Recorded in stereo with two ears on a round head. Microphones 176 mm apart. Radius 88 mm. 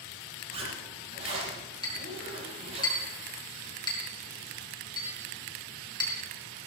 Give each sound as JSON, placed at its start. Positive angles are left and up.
{"t": 0.5, "sound": "a zipper", "side_deg": -30, "distance_m": 8.0}
{"t": 1.8, "sound": "a clink", "side_deg": 25, "distance_m": 4.0}